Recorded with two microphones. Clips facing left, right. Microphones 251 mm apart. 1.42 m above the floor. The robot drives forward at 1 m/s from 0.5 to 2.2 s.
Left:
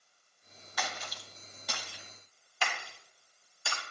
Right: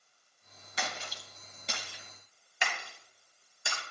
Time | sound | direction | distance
0.8 | a splash | 25° right (ahead or behind) | 1.0 m